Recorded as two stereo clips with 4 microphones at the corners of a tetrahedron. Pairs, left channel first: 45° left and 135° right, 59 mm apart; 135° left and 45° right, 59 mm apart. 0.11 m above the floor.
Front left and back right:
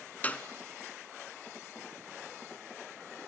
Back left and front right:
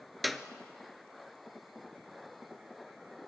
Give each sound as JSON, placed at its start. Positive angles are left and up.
{"t": 0.2, "sound": "a clap", "azimuth_deg": 40, "distance_m": 0.9}